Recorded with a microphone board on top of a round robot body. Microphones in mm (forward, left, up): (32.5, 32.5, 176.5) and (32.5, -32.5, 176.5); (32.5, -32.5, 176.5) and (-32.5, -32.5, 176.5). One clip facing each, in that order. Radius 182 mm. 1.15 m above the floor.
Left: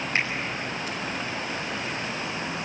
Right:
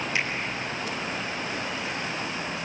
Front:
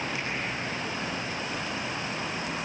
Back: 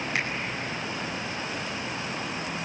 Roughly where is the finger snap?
Behind left.